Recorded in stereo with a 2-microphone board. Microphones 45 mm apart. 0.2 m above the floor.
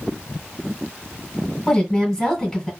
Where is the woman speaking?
10° left (ahead or behind), 1.6 m.